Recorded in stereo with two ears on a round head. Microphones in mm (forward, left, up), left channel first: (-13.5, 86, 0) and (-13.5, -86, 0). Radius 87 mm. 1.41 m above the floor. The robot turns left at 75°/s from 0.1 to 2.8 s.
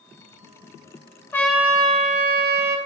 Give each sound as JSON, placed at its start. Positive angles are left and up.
{"t": 1.3, "sound": "a trumpet", "azimuth_deg": 15, "distance_m": 0.5}